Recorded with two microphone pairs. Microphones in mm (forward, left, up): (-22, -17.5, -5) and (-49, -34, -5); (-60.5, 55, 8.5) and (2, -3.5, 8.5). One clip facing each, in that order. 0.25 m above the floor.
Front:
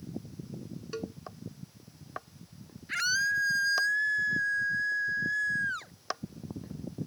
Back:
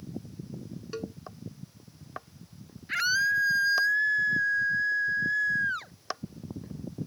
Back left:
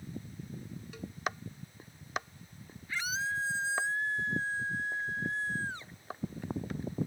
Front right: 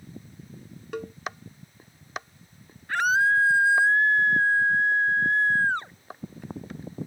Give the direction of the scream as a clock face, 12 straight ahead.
2 o'clock.